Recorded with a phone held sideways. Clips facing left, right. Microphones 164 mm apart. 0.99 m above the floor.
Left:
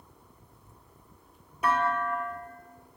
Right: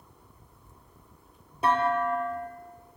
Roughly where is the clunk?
Right.